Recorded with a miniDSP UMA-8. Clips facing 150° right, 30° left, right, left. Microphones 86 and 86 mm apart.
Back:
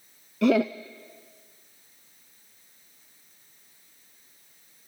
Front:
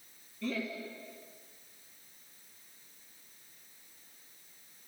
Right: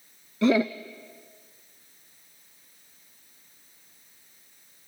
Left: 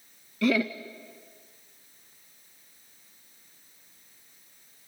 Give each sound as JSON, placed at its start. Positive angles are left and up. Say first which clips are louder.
{"t": 0.4, "sound": "laughter", "louder": "back 15 dB, right 3 dB", "azimuth_deg": -155, "distance_m": 0.6}